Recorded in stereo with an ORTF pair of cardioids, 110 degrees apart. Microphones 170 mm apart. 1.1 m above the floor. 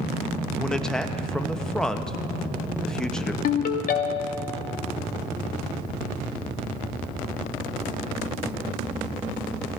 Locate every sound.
0.6 s a man speaking: 5° left, 0.8 m
3.4 s a ringtone: 60° left, 0.9 m